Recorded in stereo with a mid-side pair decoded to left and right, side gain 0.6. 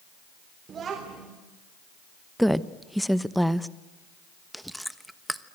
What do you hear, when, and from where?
0.7 s a child speaking: 40° right, 3.5 m
2.4 s a woman speaking: straight ahead, 1.2 m
4.5 s chewing: straight ahead, 1.2 m